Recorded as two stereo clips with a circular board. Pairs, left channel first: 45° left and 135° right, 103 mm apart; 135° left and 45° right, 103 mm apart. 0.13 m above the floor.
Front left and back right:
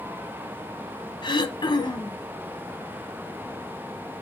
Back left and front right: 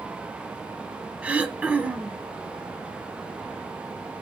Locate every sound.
1.2 s throat clearing: 30° left, 0.7 m